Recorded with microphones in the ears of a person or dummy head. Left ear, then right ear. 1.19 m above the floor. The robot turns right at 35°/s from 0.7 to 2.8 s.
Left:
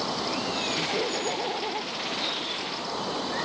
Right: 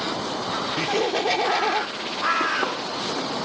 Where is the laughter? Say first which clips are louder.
Right 5 dB; 100° right; by 1.9 s 60° right.